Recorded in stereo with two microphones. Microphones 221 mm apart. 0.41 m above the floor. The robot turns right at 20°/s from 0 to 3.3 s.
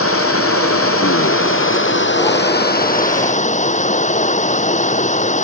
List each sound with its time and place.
0.0 s running water: 80° left; by 5.4 s 145° left